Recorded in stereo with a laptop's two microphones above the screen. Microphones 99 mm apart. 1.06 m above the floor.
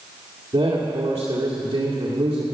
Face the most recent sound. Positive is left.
turn(degrees=-85)